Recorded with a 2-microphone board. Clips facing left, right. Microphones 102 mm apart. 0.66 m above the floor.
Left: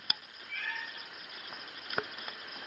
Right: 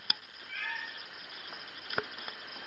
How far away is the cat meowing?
About 1.7 m.